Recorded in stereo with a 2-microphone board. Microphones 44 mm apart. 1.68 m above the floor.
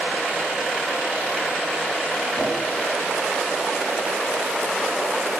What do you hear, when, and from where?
2.4 s a whoosh: 80° left, 7 m